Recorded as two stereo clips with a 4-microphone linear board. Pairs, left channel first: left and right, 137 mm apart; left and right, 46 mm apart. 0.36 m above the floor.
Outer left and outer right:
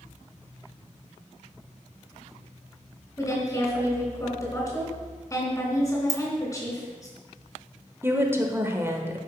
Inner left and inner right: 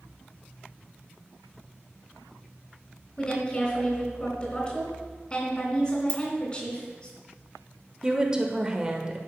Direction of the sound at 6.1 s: 25° left (ahead or behind).